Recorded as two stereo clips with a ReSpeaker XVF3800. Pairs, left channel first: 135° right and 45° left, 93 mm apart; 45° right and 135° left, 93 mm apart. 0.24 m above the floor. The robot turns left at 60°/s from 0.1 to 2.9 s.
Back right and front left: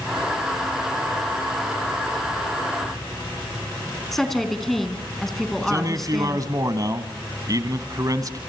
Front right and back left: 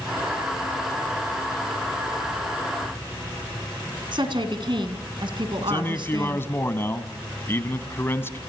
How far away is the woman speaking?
About 2.5 m.